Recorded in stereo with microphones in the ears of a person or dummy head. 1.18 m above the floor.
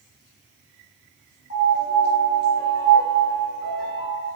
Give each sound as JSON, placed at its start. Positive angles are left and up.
{"t": 1.5, "sound": "a piano", "side_deg": 65, "distance_m": 1.5}